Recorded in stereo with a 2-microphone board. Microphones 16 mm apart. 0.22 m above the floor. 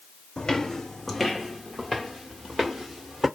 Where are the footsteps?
60° left (ahead or behind), 0.6 m; by 3.3 s 25° right (ahead or behind), 2 m.